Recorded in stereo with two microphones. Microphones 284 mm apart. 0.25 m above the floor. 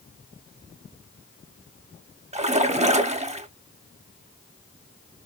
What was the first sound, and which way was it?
A splash, 25° right (ahead or behind).